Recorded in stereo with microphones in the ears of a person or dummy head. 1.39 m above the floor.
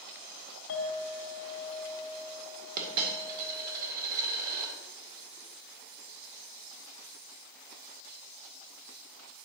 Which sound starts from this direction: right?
A dropped coin, at 2.8 s.